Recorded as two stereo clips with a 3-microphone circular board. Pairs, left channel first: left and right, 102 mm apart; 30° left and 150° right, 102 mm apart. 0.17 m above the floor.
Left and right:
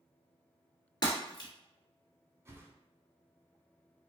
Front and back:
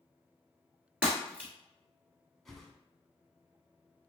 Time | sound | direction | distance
1.0 | breaking glass | 135° left | 1.6 m
2.5 | a whoosh | 55° right | 0.6 m